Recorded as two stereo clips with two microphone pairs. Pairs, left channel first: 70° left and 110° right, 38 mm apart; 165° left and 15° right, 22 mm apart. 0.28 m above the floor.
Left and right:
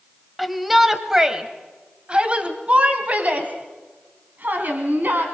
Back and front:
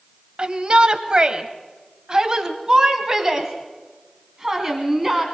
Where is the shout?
20° right, 1.8 m; by 5.2 s 85° right, 3 m.